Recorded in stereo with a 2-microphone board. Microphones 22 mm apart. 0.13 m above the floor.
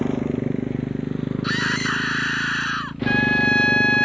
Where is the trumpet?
45° left (ahead or behind).